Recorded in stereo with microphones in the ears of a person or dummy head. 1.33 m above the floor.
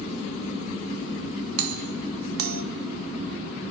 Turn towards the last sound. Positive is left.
turn(degrees=-80)